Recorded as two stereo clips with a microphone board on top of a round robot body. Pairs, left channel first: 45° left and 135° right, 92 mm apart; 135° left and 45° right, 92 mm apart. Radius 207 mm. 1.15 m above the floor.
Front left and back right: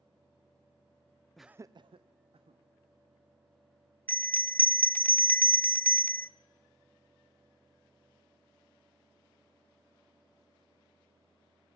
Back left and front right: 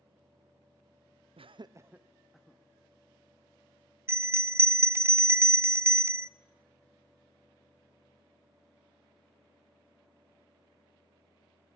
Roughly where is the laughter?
Ahead right.